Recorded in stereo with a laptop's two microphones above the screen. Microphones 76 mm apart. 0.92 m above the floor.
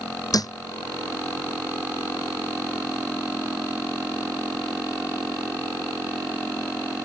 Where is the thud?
55° left (ahead or behind).